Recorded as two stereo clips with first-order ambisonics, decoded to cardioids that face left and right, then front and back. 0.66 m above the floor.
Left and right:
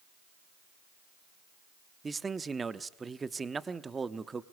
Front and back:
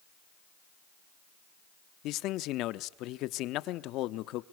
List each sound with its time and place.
2.0 s a man speaking: 20° right, 0.9 m